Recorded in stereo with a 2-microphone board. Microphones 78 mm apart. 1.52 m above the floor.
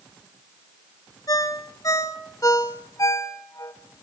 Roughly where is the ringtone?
Left.